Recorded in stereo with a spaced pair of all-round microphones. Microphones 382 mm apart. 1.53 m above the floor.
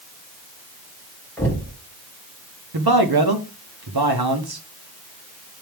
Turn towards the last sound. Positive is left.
turn(degrees=-70)  # may be behind; listen again after turning